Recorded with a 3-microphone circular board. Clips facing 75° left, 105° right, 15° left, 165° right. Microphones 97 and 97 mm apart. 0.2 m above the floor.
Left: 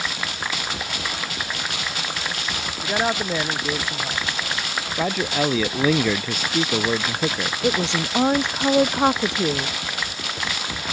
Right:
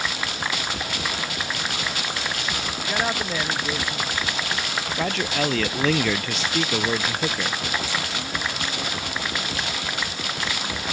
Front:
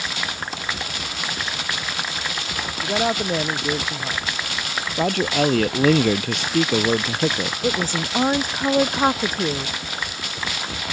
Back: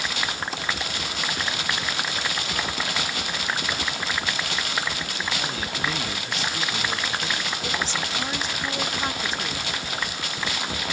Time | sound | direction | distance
2.8 | a man speaking | straight ahead | ?
5.0 | a man speaking | 5° right | ?
7.6 | a woman speaking | 55° left | ?